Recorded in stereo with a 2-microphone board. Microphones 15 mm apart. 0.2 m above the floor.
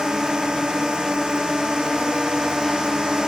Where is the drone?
50° right (ahead or behind); by 3.3 s 55° right (ahead or behind).